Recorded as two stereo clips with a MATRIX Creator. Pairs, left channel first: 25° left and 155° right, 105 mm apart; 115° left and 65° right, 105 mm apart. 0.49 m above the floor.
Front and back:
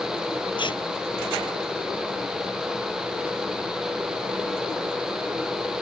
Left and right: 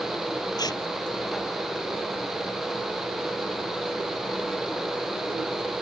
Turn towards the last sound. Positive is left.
turn(degrees=60)